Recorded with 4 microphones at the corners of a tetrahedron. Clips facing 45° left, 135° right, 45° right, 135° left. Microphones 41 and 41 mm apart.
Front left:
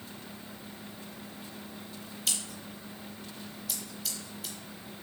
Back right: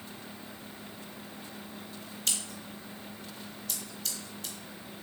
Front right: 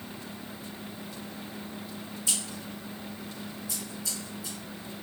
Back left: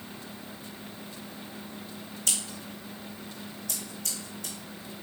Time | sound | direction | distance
2.3 | scissors | 130° left | 0.8 m